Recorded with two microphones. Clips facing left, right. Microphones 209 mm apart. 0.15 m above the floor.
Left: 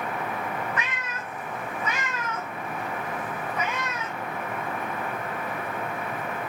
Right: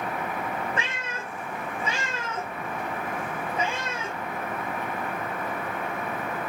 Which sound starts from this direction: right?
A cat meowing, at 0.8 s.